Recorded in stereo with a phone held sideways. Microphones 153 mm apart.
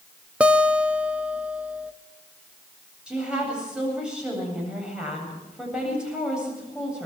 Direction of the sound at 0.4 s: 5° right (ahead or behind).